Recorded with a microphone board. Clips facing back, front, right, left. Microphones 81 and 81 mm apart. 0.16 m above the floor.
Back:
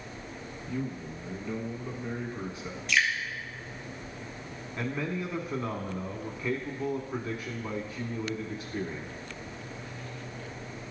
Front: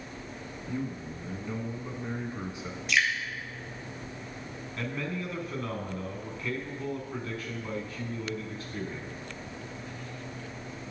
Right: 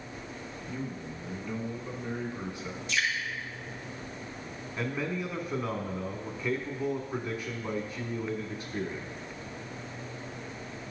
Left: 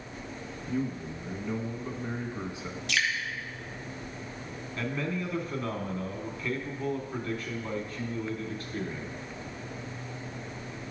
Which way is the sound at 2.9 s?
85° left.